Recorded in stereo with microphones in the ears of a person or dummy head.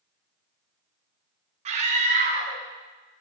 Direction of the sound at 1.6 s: 40° right (ahead or behind).